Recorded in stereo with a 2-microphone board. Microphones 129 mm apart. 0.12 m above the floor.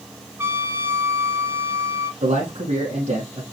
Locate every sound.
0.4 s a trumpet: 20° right (ahead or behind), 0.7 m
2.2 s a man speaking: 65° right (ahead or behind), 3.5 m